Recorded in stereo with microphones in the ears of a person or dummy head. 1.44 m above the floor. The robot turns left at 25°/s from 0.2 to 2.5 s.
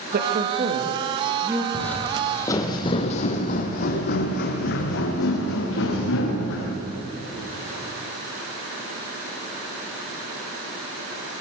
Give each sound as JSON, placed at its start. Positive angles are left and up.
{"t": 0.1, "sound": "a woman speaking", "side_deg": -45, "distance_m": 2.5}
{"t": 1.7, "sound": "footsteps", "side_deg": 10, "distance_m": 2.0}